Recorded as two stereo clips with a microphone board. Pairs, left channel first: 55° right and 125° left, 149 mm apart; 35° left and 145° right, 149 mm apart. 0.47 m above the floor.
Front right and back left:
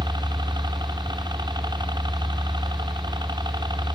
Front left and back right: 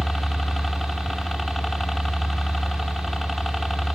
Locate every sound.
0.0 s a helicopter: 125° left